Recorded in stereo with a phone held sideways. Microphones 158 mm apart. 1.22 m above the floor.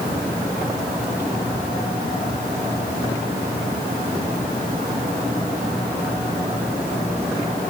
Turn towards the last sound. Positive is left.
No sound to turn to.